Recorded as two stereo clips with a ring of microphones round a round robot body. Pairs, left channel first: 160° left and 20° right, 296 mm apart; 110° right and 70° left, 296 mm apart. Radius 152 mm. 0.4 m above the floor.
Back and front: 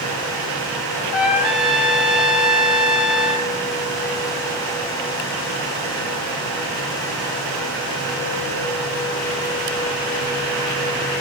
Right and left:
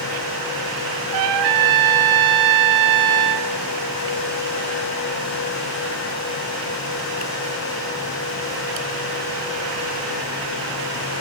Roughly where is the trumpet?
Ahead left.